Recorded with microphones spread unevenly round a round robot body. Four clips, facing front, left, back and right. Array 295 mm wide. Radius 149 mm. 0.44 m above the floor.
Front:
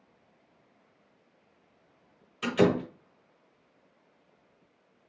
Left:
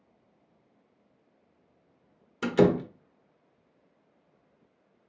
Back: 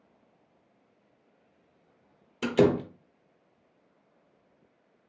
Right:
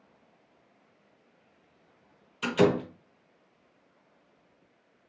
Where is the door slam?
135° left, 0.9 m.